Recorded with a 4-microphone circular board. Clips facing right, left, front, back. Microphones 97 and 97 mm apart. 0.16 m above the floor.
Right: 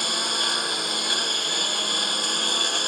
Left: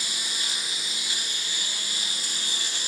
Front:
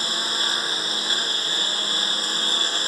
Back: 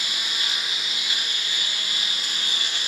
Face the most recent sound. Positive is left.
turn(degrees=-55)